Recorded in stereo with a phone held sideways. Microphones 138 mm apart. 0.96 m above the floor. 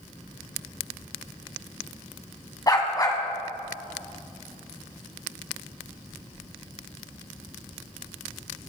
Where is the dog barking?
30° left (ahead or behind), 1.8 m.